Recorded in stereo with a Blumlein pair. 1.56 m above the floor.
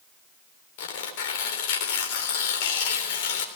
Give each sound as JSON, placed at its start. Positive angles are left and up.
{"t": 0.8, "sound": "tearing paper", "azimuth_deg": 50, "distance_m": 3.5}